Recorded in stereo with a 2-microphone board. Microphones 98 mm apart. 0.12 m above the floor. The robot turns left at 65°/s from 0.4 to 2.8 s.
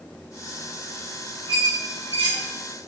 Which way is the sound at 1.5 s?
70° right (ahead or behind).